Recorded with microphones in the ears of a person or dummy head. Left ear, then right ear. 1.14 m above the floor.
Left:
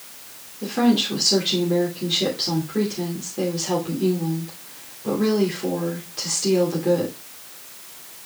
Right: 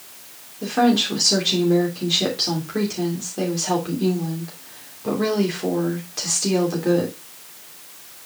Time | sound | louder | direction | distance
0.6 | a woman speaking | right 2 dB | 35° right (ahead or behind) | 2.5 m